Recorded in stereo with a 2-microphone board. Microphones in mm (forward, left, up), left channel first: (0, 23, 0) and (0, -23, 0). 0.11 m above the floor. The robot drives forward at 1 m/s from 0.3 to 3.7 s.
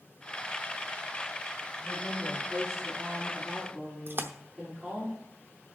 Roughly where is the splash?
Right.